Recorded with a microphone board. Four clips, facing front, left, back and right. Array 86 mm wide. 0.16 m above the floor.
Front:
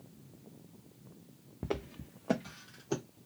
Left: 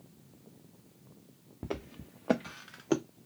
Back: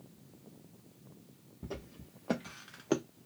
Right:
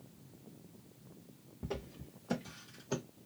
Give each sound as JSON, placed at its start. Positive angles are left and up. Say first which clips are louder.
{"t": 1.6, "sound": "footsteps", "louder": "left 3 dB, front 7 dB", "azimuth_deg": 35, "distance_m": 0.9}